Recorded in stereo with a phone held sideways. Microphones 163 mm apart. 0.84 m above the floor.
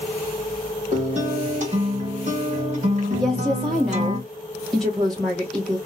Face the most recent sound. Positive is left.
turn(degrees=0)  # may be behind; listen again after turning